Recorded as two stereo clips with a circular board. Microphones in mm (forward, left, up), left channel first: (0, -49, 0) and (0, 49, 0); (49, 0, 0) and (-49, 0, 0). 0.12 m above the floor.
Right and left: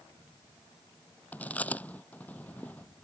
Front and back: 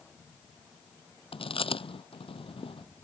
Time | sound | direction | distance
1.3 | chewing | 15° right | ?